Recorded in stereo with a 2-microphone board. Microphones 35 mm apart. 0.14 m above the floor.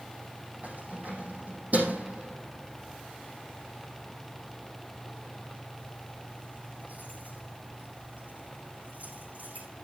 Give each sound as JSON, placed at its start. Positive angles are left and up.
{"t": 0.6, "sound": "keys jangling", "side_deg": -50, "distance_m": 4.5}